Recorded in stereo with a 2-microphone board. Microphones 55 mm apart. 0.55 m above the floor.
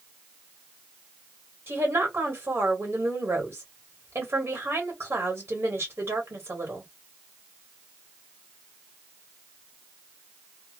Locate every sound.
1.7 s a woman speaking: 45° right (ahead or behind), 1.4 m